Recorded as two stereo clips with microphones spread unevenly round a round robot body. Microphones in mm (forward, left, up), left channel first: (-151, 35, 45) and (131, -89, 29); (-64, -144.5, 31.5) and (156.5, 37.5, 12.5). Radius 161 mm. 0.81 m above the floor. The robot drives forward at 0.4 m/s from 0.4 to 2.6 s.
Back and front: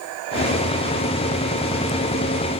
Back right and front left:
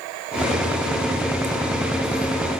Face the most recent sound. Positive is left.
No sound to turn to.